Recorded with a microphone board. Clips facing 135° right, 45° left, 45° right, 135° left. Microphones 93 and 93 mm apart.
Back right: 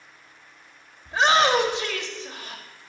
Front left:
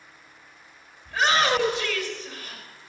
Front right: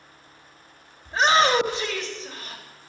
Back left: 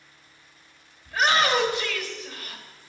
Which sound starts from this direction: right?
A shout, at 1.1 s.